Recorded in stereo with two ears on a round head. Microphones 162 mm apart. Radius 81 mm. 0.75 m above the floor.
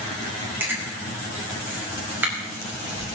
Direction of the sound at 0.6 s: 10° right (ahead or behind).